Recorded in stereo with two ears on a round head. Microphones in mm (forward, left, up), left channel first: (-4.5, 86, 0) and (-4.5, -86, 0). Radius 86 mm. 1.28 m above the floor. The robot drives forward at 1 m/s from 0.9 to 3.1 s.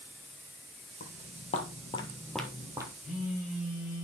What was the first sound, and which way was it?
Footsteps, 40° left (ahead or behind).